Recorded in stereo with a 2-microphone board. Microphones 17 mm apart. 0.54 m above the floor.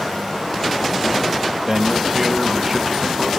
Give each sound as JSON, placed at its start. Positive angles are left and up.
{"t": 1.7, "sound": "a man speaking", "side_deg": -20, "distance_m": 2.5}